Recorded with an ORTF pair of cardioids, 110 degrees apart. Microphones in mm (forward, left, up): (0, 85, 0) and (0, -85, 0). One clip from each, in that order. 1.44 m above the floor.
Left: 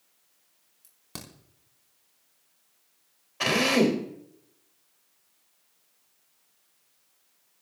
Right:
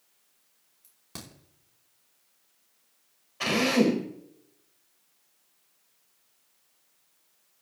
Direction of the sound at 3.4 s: 25° left.